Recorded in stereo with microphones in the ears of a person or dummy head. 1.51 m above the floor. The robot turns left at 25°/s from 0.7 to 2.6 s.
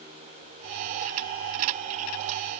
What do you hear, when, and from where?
Only background noise.